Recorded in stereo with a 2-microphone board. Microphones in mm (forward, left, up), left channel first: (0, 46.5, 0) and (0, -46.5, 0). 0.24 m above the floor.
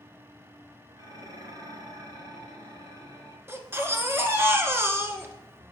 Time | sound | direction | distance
1.0 | dishes clattering | 50° right (ahead or behind) | 2.5 m
3.5 | a baby crying | 25° right (ahead or behind) | 1.4 m